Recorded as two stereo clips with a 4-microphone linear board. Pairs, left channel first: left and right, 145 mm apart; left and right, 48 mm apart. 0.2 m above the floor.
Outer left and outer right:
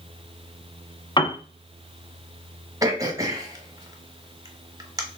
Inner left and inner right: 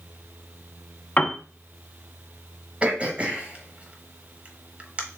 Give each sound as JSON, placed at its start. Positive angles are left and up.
{"t": 1.2, "sound": "a piano", "side_deg": 35, "distance_m": 0.5}
{"t": 2.8, "sound": "throat clearing", "side_deg": -25, "distance_m": 0.9}